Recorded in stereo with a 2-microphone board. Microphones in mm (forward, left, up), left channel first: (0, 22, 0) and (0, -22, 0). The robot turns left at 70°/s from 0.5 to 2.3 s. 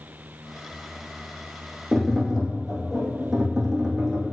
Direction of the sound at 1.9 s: 20° left (ahead or behind).